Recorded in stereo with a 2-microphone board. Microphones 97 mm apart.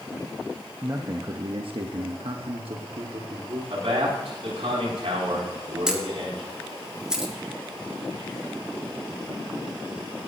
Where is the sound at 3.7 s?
75° right (ahead or behind), 7 m.